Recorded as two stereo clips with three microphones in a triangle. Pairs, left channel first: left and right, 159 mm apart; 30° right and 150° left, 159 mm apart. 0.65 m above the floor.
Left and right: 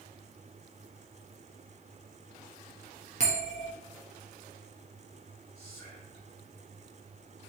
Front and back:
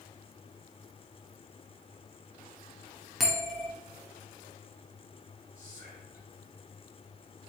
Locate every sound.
3.2 s a bell: 120° right, 1.3 m
5.5 s whispering: 130° right, 2 m